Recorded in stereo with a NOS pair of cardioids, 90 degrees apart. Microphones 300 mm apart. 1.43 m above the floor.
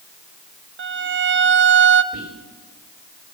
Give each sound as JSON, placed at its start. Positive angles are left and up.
{"t": 0.8, "sound": "a violin", "azimuth_deg": -45, "distance_m": 0.6}
{"t": 2.1, "sound": "whispering", "azimuth_deg": -55, "distance_m": 2.0}